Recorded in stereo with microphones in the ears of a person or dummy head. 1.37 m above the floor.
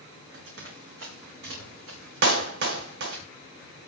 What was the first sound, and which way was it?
Running footsteps, 75° right (ahead or behind).